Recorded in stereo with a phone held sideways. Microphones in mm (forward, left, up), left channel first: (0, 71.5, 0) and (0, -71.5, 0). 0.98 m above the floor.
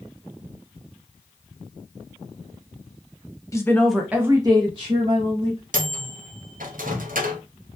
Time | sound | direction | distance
3.5 | a woman speaking | 25° left (ahead or behind) | 0.6 m
5.7 | a microwave | 80° right | 0.5 m